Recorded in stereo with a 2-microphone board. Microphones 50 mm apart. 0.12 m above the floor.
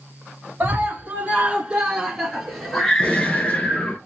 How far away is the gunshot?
About 1.4 m.